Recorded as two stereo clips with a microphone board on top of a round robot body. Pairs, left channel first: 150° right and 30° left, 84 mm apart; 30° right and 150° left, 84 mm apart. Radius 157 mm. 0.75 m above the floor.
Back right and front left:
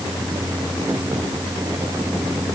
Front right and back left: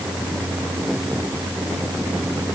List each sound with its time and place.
Only background noise.